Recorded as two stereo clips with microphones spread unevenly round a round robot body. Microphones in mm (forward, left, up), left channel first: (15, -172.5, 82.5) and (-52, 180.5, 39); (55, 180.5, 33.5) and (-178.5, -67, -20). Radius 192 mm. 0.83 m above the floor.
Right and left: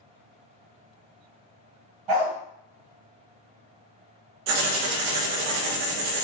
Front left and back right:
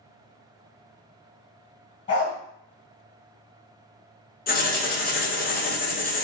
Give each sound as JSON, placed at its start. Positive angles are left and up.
{"t": 2.1, "sound": "a dog barking", "azimuth_deg": 110, "distance_m": 1.7}
{"t": 4.5, "sound": "writing", "azimuth_deg": 110, "distance_m": 0.7}